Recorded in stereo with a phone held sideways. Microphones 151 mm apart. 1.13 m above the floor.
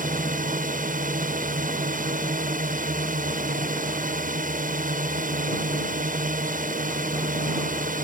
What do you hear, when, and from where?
0.0 s a drone: 65° right (ahead or behind)